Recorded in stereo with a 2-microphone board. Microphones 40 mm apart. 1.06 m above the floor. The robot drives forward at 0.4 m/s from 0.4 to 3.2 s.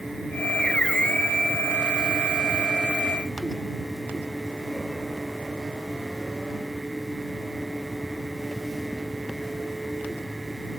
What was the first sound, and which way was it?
Only background noise.